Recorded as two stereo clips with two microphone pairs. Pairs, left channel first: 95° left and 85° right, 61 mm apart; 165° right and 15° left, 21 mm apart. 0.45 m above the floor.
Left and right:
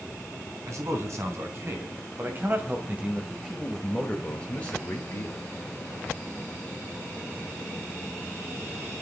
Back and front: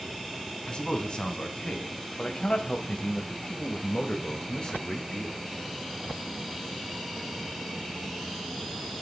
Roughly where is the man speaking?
Behind right.